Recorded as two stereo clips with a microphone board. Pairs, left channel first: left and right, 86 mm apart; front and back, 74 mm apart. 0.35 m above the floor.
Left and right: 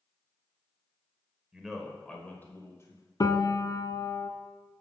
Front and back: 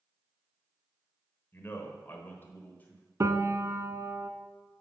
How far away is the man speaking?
About 1.3 m.